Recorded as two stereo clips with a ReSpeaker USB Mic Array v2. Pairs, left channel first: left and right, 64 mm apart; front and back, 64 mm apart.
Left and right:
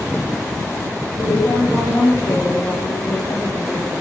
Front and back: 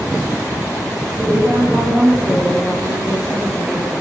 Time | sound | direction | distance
1.2 | a woman speaking | 115° left | 9 m